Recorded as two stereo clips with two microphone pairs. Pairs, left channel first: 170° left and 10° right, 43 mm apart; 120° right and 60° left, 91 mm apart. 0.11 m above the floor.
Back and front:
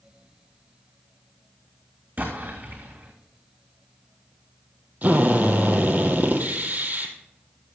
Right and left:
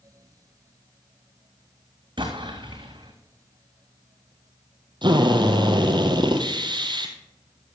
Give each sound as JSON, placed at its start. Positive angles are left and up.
{"t": 2.2, "sound": "an explosion", "azimuth_deg": 35, "distance_m": 3.0}
{"t": 5.0, "sound": "a drill", "azimuth_deg": 40, "distance_m": 1.8}